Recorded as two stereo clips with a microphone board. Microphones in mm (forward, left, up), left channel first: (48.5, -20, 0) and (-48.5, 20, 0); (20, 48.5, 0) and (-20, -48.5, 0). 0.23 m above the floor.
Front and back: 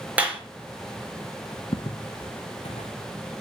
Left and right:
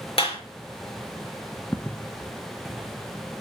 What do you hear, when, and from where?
0.2 s a clap: 80° left, 4 m
1.7 s footsteps: straight ahead, 0.8 m; by 3.0 s 35° right, 1.3 m